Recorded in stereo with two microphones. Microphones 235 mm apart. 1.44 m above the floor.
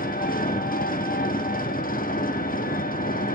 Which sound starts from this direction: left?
An engine running, at 0.0 s.